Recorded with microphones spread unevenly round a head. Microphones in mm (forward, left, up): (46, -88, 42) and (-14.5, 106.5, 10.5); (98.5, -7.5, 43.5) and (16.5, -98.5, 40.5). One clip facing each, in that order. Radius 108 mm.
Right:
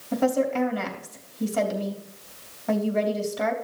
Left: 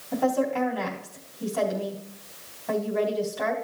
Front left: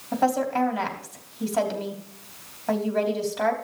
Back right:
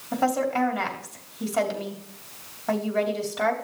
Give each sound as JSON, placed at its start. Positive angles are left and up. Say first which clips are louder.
{"t": 0.1, "sound": "a woman speaking", "louder": "right 2 dB, front left 1 dB", "azimuth_deg": -40, "distance_m": 3.0}